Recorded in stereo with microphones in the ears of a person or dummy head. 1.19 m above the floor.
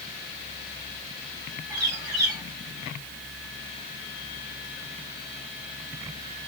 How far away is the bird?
About 3.5 m.